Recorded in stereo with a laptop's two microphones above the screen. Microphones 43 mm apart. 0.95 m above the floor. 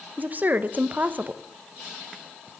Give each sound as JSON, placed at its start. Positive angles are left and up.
{"t": 0.2, "sound": "a woman speaking", "side_deg": -45, "distance_m": 0.7}